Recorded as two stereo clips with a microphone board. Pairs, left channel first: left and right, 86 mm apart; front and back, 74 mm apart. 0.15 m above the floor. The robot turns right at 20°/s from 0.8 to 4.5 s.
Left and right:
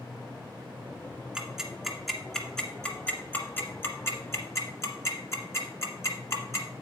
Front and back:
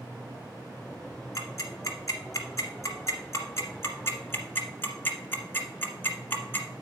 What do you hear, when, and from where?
1.4 s ticking: 15° right, 1.6 m; by 6.7 s 50° left, 1.6 m